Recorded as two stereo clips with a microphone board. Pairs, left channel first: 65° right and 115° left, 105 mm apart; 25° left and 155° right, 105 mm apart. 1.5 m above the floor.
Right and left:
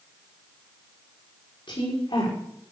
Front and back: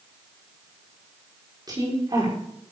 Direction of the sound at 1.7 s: 105° right.